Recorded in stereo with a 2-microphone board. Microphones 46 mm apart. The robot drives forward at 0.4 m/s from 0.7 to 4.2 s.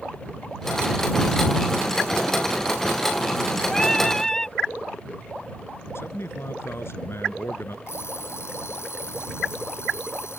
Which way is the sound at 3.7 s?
10° left (ahead or behind).